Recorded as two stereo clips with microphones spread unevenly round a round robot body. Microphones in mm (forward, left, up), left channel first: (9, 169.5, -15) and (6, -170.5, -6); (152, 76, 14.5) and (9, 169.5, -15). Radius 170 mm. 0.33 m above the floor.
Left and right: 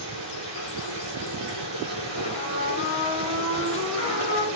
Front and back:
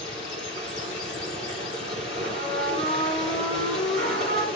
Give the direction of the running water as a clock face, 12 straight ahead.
4 o'clock.